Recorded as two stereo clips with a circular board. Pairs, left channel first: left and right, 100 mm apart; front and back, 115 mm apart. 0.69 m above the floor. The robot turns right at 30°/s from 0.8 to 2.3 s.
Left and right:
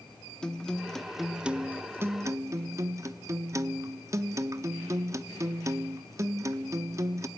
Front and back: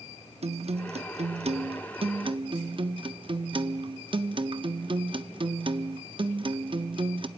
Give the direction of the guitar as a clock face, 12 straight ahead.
6 o'clock.